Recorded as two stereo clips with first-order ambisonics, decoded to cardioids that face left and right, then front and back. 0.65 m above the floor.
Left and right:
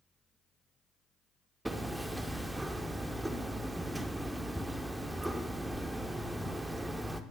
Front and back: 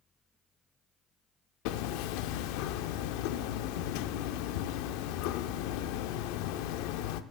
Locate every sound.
1.6 s hammering: 5° right, 0.6 m